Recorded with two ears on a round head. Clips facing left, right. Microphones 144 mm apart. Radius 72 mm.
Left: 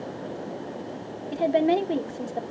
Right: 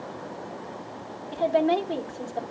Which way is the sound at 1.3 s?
20° left (ahead or behind).